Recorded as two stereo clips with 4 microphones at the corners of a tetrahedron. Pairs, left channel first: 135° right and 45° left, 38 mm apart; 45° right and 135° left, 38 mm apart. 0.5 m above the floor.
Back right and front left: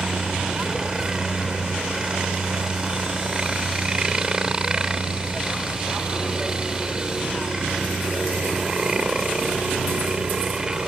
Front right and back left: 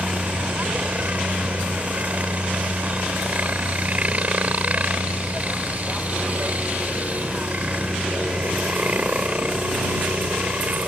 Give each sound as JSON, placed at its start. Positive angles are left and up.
{"t": 0.0, "sound": "a helicopter", "azimuth_deg": 110}